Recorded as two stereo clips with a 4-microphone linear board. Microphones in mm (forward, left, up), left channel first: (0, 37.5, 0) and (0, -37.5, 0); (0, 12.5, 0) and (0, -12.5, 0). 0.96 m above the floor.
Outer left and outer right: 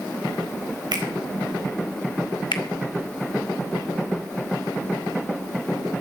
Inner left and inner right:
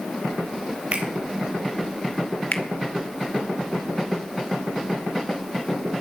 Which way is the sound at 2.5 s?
85° left.